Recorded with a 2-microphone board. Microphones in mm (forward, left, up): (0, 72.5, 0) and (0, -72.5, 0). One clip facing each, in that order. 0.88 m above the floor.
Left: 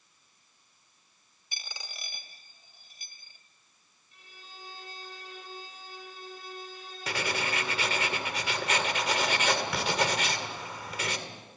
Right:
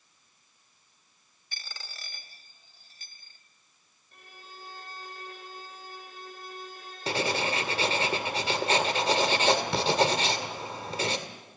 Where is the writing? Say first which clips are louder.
Right 4 dB; 30° right (ahead or behind), 2.0 m.